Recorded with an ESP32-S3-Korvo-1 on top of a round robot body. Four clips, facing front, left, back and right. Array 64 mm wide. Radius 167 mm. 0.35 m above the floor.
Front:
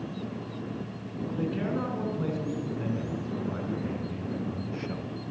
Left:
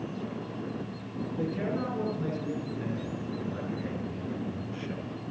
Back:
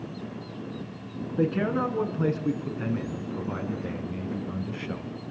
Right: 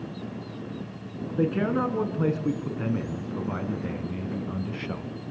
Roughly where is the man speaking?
Behind right.